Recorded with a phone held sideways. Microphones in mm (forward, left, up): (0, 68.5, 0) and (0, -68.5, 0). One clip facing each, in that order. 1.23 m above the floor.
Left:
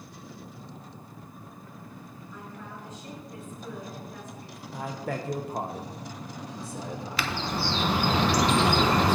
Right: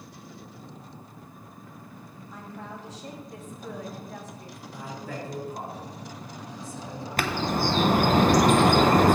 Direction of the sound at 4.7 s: 70° left (ahead or behind).